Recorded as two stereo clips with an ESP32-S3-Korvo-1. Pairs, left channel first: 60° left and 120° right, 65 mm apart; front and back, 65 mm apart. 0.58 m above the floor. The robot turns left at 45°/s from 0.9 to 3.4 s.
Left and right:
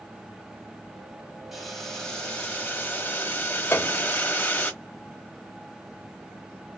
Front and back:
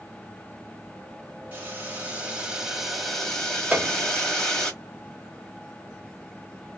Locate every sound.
1.5 s boiling: 160° left, 1.3 m; by 4.7 s 75° left, 1.3 m
3.7 s a piano: 110° left, 0.7 m